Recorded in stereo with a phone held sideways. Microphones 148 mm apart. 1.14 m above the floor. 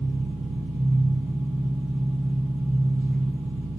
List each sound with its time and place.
0.0 s an engine running: 10° right (ahead or behind), 5 m